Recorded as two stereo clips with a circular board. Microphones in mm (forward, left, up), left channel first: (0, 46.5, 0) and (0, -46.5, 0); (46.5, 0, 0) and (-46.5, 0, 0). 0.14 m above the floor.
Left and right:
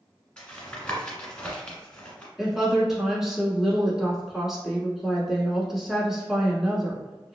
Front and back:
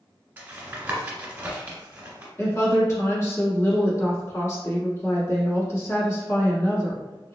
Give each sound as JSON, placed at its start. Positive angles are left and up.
{"t": 0.4, "sound": "tapping", "azimuth_deg": 145, "distance_m": 1.4}
{"t": 2.4, "sound": "a woman speaking", "azimuth_deg": -10, "distance_m": 1.3}